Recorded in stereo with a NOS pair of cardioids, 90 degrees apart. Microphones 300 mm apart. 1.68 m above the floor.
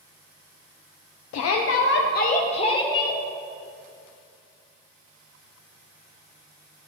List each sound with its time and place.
1.3 s a shout: 60° left, 0.8 m; by 3.2 s 10° left, 1.4 m